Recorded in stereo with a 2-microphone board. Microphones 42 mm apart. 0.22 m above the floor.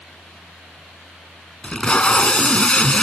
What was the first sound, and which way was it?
Tape being pulled, 25° left (ahead or behind).